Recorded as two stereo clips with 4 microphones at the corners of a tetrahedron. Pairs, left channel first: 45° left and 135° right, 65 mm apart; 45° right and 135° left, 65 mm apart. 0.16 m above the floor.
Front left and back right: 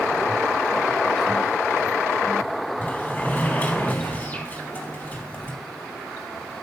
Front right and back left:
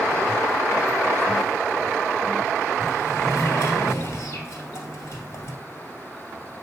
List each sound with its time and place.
2.8 s a sliding door: 10° right, 2 m